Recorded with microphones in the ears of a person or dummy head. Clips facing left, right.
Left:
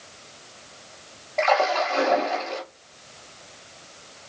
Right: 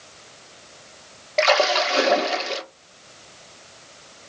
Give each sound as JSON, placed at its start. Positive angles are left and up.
{"t": 1.4, "sound": "a splash", "side_deg": -45, "distance_m": 0.8}